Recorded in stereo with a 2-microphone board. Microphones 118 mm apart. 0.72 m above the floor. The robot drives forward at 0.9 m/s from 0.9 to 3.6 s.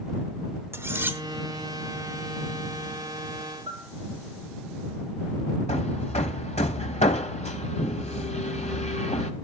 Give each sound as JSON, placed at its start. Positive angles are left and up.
{"t": 0.7, "sound": "cutlery clinking", "side_deg": -20, "distance_m": 1.0}
{"t": 3.7, "sound": "a bell", "side_deg": -40, "distance_m": 8.0}
{"t": 5.7, "sound": "hammering", "side_deg": 70, "distance_m": 1.5}